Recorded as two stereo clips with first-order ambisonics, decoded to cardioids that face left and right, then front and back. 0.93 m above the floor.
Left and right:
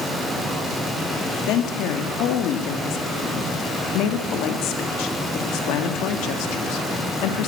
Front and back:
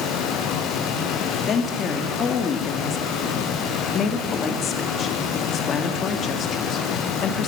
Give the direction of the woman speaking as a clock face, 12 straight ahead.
10 o'clock.